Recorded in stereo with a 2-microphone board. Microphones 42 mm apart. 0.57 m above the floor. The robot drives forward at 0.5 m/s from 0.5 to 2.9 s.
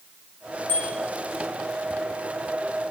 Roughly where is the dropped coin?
No dropped coin in this recording.